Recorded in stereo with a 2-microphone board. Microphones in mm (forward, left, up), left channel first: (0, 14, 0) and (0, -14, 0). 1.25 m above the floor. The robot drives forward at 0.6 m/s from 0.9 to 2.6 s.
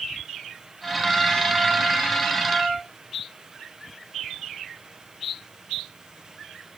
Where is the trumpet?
20° left (ahead or behind), 6.5 m; by 2.9 s 15° left (ahead or behind), 7.5 m.